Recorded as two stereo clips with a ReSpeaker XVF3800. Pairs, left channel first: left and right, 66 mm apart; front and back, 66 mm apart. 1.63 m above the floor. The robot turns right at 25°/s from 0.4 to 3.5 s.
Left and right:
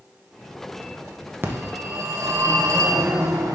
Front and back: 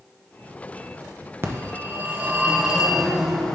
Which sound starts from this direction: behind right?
A phone ringing, at 1.4 s.